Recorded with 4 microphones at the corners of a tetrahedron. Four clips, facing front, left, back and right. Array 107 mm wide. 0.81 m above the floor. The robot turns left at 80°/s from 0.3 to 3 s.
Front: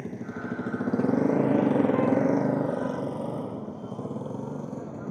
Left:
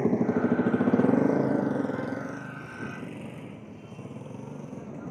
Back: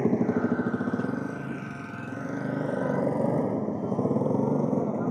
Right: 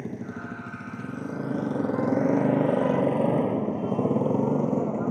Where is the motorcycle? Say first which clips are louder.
Left 11 dB, back 11 dB; 135° left; by 5.1 s 130° right.